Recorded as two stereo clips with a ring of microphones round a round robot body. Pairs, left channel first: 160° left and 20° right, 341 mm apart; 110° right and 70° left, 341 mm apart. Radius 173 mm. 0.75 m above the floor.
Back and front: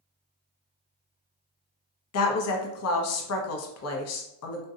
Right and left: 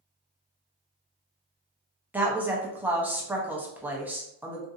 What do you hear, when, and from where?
2.1 s a woman speaking: 150° left, 0.7 m